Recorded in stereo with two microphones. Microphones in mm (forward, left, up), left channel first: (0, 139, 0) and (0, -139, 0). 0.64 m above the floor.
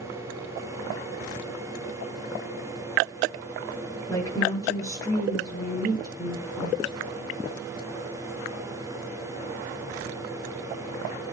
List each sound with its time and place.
4.1 s a woman speaking: 10° left (ahead or behind), 8.5 m